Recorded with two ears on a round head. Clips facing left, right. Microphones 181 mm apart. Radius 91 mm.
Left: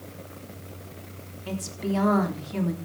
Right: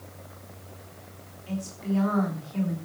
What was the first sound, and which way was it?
A woman speaking, 70° left (ahead or behind).